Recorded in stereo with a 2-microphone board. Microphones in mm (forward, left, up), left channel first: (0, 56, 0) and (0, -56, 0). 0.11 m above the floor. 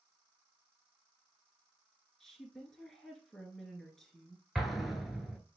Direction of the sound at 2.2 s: 5° left (ahead or behind).